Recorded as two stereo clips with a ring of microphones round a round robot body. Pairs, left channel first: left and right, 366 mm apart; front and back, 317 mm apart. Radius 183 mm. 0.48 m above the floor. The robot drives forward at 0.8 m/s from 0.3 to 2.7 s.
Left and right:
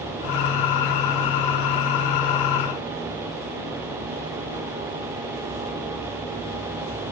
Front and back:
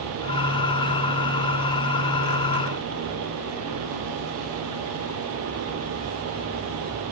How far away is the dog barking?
No dog barking in this recording.